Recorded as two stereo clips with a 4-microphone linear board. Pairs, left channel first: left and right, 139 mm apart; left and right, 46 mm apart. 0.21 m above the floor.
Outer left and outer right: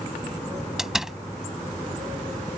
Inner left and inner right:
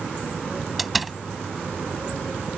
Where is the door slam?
5° right (ahead or behind).